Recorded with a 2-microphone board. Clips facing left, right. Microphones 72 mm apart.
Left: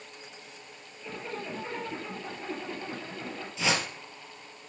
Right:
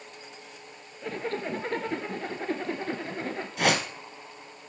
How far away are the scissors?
No scissors in this recording.